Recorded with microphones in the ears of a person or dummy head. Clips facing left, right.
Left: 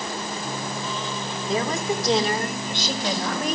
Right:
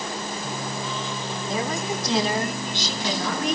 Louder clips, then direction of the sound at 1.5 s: Left 3 dB; 70° left (ahead or behind).